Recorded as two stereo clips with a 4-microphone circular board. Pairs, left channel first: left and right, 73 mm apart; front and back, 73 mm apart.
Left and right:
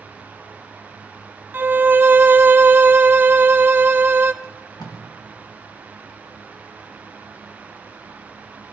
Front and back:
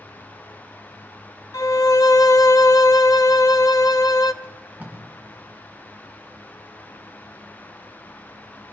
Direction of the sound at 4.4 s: 110° left.